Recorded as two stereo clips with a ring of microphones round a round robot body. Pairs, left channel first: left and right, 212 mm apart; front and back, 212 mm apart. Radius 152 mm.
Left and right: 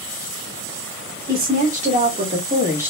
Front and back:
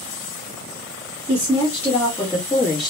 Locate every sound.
1.3 s a woman speaking: 80° right, 1.4 m; by 2.9 s 90° right, 1.0 m